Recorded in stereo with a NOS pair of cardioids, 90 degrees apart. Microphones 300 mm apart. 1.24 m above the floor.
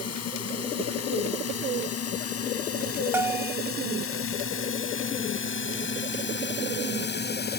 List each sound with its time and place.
0.0 s a drone: 55° left; by 7.6 s 35° left
3.1 s a bell: 10° right